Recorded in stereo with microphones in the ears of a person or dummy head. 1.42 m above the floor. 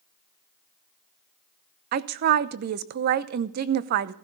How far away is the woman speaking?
About 0.7 m.